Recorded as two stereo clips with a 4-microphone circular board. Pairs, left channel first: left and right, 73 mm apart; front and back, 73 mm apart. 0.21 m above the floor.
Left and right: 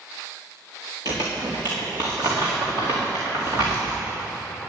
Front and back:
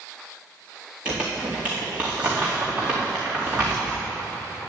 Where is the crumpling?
110° right, 4 m.